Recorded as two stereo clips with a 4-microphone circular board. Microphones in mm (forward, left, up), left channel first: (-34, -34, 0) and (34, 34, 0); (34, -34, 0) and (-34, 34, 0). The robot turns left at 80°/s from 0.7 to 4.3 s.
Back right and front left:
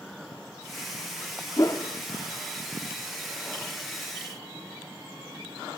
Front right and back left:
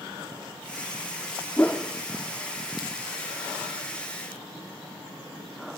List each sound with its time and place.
1.6 s a whoosh: 105° right, 1.3 m; by 1.9 s 130° right, 1.3 m